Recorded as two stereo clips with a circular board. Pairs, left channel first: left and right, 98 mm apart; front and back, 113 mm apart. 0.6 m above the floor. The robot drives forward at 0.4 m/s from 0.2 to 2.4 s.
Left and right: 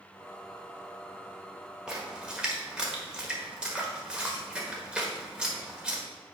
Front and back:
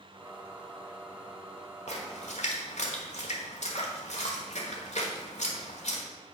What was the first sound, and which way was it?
A splash, 5° right.